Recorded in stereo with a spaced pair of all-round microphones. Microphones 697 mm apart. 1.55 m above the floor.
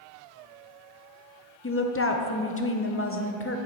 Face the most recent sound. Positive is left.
turn(degrees=20)  # may be behind; listen again after turning